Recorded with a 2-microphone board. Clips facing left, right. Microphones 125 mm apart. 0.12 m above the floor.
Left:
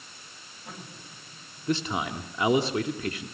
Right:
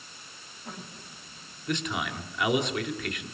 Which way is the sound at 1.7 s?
30° left (ahead or behind).